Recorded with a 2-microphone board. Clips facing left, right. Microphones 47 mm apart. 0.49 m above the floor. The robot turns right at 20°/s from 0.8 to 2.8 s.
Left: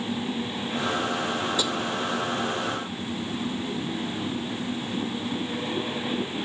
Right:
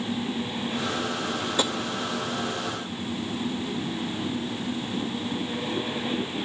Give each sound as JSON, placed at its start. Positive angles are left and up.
{"t": 1.6, "sound": "tapping", "side_deg": -40, "distance_m": 0.6}